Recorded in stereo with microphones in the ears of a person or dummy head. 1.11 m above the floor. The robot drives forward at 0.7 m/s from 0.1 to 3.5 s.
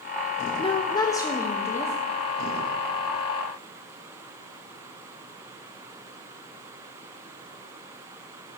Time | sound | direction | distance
0.6 | a woman speaking | 20° left (ahead or behind) | 1.1 m